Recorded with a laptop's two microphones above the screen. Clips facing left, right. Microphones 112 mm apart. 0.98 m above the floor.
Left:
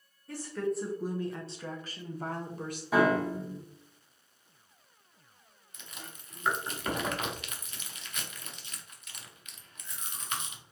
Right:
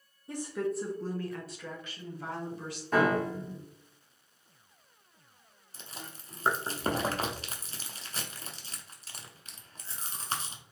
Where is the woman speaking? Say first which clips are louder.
Even; 20° right (ahead or behind), 0.7 m; by 2.8 s 50° left (ahead or behind), 1.3 m.